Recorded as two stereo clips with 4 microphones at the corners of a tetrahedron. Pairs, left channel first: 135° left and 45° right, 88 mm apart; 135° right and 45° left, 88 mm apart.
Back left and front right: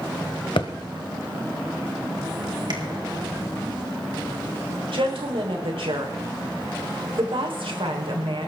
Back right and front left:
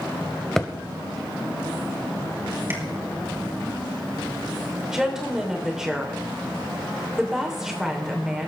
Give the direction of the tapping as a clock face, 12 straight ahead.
1 o'clock.